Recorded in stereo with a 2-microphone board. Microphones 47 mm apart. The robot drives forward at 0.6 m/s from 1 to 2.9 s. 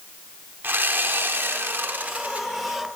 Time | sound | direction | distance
0.6 | sawing | 45° right (ahead or behind) | 0.7 m